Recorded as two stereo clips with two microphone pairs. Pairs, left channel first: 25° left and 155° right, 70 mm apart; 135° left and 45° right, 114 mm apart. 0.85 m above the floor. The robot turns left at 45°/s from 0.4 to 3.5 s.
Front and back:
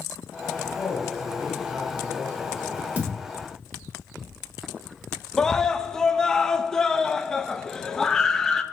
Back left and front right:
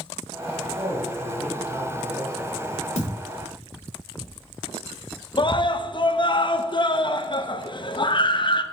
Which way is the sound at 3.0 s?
140° left.